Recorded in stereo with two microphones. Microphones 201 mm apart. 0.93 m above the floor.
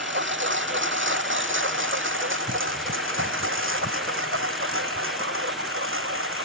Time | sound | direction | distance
0.0 | a lawn mower | 65° right (ahead or behind) | ?